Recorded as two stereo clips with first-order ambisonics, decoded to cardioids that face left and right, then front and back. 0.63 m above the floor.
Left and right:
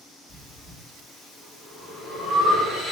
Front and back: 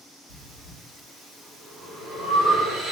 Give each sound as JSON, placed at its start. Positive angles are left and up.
{"t": 0.3, "sound": "breathing", "azimuth_deg": 175, "distance_m": 1.5}